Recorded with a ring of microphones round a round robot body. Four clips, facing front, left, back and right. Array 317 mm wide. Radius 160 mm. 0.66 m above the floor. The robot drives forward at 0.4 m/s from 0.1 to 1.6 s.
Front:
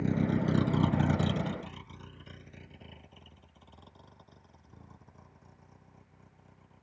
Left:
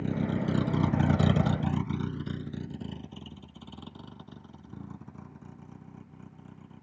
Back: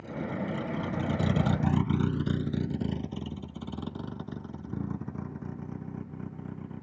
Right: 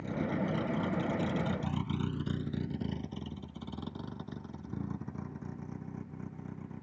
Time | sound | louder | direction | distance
0.0 | a vehicle | left 3 dB, front 5 dB | 30° left | ?